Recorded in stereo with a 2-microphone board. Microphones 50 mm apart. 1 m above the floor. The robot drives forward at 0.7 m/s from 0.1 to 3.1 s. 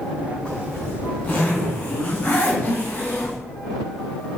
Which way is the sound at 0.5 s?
30° left (ahead or behind).